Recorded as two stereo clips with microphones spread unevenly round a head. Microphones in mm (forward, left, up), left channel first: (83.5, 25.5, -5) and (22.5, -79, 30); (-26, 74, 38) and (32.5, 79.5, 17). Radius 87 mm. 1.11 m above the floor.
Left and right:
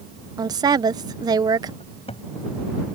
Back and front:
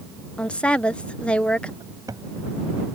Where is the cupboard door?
20° left.